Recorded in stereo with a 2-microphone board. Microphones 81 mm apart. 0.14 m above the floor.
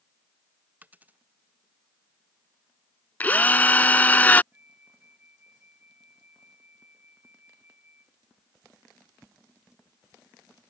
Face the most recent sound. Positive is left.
turn(degrees=-20)  # may be behind; listen again after turning